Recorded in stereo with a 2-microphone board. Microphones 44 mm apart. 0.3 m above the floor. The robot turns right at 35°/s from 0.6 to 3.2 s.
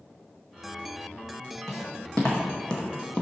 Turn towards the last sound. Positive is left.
turn(degrees=25)  # may be behind; listen again after turning